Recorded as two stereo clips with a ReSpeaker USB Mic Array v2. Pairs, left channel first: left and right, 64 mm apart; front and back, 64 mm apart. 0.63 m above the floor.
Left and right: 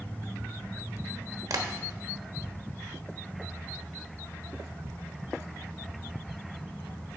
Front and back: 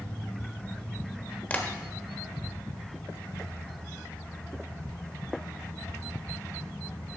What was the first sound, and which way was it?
Tapping, 70° right.